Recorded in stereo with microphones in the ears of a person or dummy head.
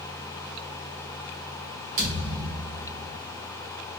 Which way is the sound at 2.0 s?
45° right (ahead or behind).